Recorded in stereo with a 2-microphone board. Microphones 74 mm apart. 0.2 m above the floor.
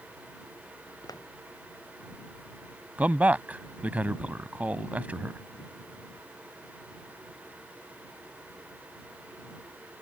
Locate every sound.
1.0 s footsteps: 55° left (ahead or behind)
3.0 s a man speaking: 20° right (ahead or behind)